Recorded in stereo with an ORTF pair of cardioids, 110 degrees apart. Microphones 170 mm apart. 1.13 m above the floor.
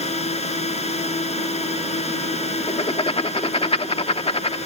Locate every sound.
0.0 s a drone: 40° left
2.7 s writing: 35° left